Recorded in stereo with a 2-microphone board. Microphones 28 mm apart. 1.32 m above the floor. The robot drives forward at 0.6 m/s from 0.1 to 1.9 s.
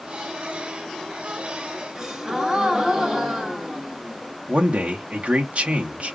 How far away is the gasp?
About 1.3 m.